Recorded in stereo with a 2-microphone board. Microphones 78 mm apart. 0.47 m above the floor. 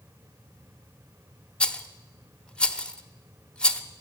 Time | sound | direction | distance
1.6 | a rattle | 15° left (ahead or behind) | 0.7 m